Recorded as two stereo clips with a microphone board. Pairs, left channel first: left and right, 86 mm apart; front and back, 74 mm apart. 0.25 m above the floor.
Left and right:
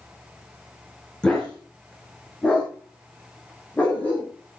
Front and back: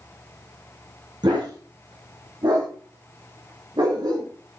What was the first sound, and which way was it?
A dog barking, 170° left.